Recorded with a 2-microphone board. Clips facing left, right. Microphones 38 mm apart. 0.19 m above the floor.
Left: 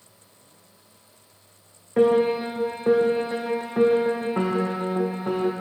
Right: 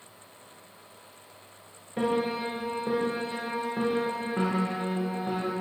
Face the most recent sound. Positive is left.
turn(degrees=75)  # may be behind; listen again after turning